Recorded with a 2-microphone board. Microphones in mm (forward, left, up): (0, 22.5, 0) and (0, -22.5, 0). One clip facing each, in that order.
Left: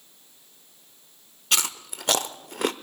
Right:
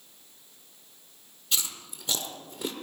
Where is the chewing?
70° left (ahead or behind), 0.6 m.